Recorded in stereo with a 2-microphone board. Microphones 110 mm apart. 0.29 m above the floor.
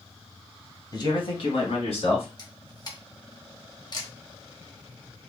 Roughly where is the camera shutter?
Left.